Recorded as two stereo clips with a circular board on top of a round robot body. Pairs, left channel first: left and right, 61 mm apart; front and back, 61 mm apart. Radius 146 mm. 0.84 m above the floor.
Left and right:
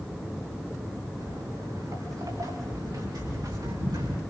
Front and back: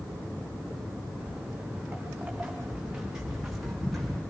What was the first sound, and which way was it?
Footsteps, 110° right.